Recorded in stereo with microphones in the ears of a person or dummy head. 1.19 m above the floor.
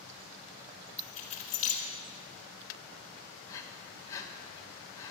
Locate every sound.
1.0 s keys jangling: 35° left (ahead or behind), 2.5 m
3.5 s breathing: 20° left (ahead or behind), 1.5 m